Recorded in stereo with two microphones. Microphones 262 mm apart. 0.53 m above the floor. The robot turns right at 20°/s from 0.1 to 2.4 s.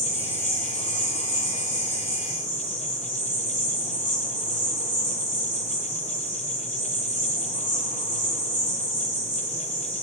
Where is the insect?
105° left, 1.1 m; by 10.0 s 150° left, 1.1 m.